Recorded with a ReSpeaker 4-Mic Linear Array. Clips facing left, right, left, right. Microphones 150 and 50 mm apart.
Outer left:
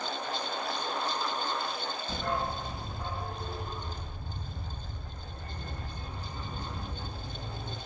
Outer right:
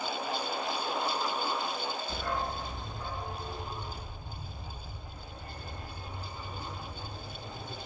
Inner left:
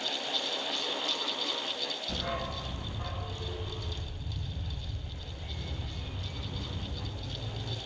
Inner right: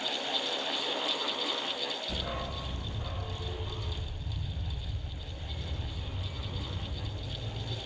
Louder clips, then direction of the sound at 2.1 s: Outer left 4 dB, inner left 2 dB; 40° left (ahead or behind).